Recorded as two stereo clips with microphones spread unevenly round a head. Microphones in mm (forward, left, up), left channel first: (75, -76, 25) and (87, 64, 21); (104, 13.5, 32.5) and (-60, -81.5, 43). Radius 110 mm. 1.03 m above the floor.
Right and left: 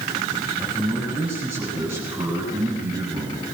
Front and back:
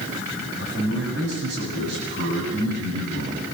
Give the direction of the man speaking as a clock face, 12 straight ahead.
6 o'clock.